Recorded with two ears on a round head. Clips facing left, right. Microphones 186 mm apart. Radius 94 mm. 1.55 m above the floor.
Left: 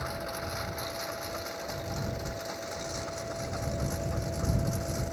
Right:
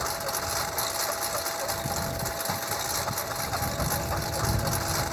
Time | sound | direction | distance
0.0 | a lawn mower | 65° right (ahead or behind) | ?